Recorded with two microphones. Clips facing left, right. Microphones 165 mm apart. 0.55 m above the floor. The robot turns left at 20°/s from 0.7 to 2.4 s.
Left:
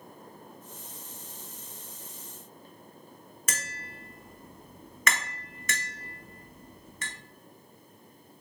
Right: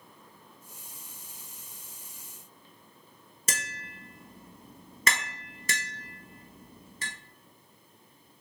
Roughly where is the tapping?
Right.